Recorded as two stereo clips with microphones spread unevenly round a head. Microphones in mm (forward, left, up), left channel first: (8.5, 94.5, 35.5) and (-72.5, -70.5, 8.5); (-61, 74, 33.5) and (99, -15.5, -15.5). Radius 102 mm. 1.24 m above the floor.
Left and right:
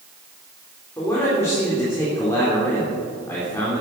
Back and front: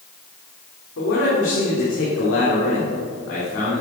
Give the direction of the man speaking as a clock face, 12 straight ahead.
7 o'clock.